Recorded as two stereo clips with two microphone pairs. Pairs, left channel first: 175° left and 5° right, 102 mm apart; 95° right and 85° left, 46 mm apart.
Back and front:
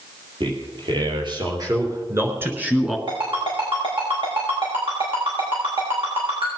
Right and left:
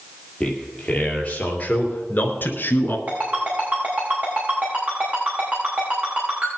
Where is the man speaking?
35° right, 4 m; by 3.0 s 90° right, 2.0 m.